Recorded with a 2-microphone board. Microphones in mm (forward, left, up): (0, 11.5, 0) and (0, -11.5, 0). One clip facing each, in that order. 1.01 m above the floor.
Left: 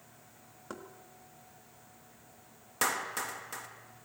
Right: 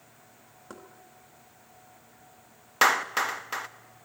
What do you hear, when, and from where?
0.7 s knocking: 10° left (ahead or behind), 1.8 m
2.8 s a clap: 45° right (ahead or behind), 0.9 m